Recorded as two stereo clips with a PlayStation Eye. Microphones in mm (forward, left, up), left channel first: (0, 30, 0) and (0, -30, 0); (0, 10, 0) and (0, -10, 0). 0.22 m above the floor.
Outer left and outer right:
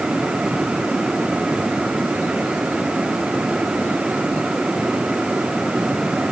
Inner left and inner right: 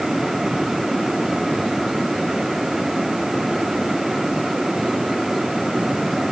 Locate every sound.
Only background noise.